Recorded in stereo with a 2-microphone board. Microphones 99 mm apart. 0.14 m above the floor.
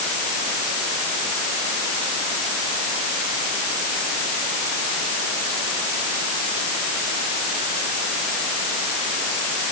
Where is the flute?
No flute in this recording.